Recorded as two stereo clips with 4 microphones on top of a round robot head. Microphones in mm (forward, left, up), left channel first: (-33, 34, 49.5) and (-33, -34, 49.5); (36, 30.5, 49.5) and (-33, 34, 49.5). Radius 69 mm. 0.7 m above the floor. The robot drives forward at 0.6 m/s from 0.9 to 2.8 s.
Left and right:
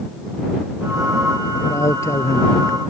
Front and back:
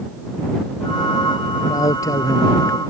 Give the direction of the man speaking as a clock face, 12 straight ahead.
11 o'clock.